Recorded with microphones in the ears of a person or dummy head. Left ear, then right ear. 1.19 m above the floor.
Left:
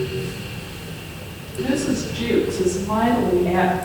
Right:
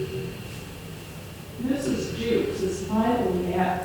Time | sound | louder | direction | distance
1.6 | a woman speaking | left 4 dB | 30° left (ahead or behind) | 9 m